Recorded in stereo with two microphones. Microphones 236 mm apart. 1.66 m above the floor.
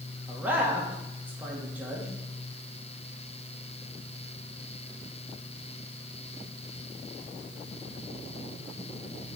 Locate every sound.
0.3 s a man speaking: 5° right (ahead or behind), 1.7 m